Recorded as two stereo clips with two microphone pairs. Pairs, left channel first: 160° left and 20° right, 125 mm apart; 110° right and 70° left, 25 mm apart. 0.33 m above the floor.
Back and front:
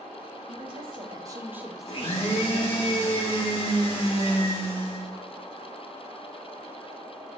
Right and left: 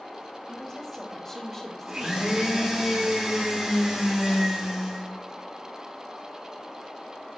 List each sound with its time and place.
0.5 s a woman speaking: 40° right, 1.8 m; by 2.9 s 160° left, 1.4 m
1.9 s a blender: 125° left, 3 m